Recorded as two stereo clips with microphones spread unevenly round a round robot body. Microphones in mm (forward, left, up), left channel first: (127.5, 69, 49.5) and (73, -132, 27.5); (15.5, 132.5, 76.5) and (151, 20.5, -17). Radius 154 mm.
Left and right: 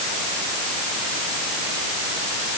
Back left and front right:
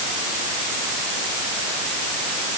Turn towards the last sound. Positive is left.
No sound to turn to.